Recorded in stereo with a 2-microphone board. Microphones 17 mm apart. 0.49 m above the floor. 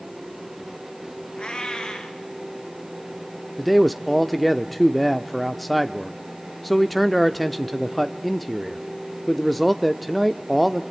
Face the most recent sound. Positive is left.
turn(degrees=0)  # may be behind; listen again after turning